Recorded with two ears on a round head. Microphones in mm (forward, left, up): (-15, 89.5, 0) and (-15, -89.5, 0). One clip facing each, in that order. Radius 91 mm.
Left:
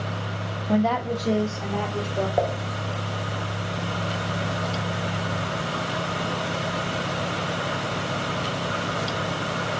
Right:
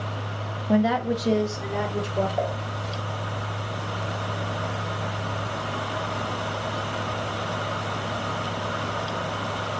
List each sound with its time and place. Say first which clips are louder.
0.7 s a woman speaking: right 1 dB; 5° right (ahead or behind), 0.7 m; by 2.3 s 15° right (ahead or behind), 2.0 m
2.4 s dishes clattering: left 3 dB; 65° left (ahead or behind), 1.3 m